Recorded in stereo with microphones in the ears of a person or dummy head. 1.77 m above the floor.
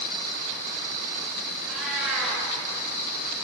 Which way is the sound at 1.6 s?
5° right (ahead or behind).